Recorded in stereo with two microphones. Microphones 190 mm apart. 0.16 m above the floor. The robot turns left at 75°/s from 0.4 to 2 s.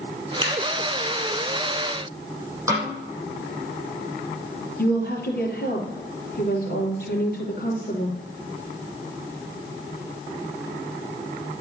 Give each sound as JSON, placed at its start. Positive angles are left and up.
{"t": 0.4, "sound": "scissors", "side_deg": -30, "distance_m": 4.0}
{"t": 2.7, "sound": "a snare drum", "side_deg": -15, "distance_m": 5.5}
{"t": 4.8, "sound": "a woman speaking", "side_deg": 60, "distance_m": 3.0}